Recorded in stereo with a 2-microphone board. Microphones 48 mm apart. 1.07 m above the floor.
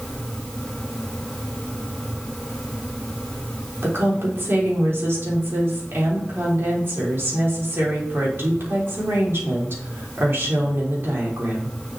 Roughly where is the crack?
No crack in this recording.